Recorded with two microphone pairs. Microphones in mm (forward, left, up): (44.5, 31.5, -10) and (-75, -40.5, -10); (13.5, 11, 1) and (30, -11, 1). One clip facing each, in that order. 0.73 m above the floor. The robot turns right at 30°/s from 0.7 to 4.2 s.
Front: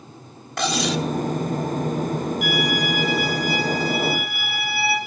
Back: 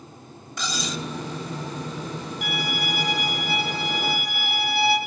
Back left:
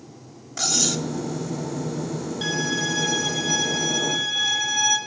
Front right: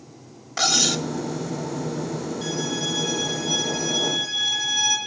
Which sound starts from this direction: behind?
A violin, at 2.4 s.